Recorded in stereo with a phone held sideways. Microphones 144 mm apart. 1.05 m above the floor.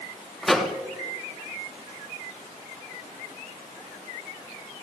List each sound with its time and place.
0.4 s a microwave: centre (ahead or behind), 0.9 m